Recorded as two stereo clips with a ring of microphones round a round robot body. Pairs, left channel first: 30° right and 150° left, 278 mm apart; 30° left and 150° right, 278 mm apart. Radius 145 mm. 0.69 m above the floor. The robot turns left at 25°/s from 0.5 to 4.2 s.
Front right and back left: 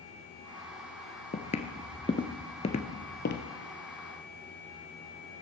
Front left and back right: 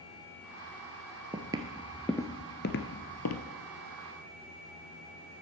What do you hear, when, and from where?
1.3 s footsteps: 85° right, 0.8 m; by 3.5 s 15° left, 1.1 m